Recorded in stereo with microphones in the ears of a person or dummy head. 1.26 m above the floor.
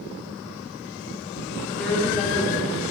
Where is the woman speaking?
10° left (ahead or behind), 3.5 m; by 2.9 s 15° left (ahead or behind), 4 m.